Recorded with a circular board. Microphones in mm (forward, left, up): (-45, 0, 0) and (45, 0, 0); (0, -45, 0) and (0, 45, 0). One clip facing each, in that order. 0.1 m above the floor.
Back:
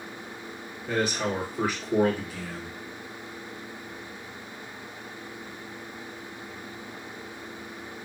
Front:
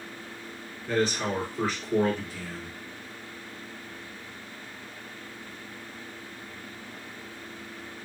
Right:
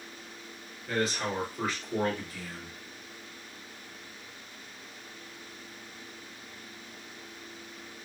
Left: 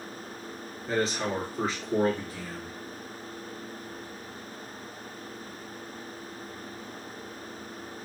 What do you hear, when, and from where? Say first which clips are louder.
0.9 s a man speaking: even, left 2 dB; 120° left, 1.9 m